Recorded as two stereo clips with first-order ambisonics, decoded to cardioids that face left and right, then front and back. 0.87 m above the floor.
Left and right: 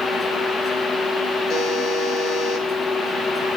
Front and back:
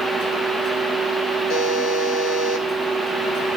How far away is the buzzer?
About 2.5 m.